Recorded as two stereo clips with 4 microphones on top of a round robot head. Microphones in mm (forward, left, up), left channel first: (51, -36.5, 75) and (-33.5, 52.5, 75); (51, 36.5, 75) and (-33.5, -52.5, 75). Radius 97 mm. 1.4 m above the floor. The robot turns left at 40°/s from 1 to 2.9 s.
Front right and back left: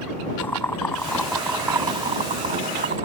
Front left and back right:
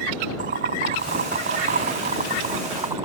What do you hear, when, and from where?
0.4 s boiling: 125° right; by 3.0 s 160° left